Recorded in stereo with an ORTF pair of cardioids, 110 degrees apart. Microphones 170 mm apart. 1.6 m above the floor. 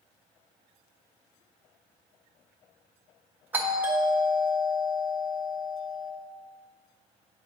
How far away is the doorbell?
About 1.3 m.